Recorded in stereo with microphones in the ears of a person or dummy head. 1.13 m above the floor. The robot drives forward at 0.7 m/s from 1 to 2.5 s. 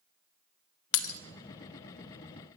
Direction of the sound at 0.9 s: 60° left (ahead or behind).